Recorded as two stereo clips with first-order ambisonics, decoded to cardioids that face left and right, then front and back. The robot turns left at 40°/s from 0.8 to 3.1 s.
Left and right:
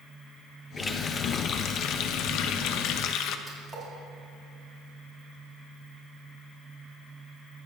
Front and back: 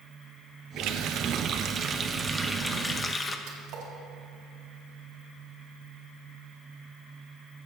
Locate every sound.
0.8 s a running tap: 165° left, 0.7 m; by 3.4 s 70° left, 0.7 m
3.5 s a splash: 155° right, 2.5 m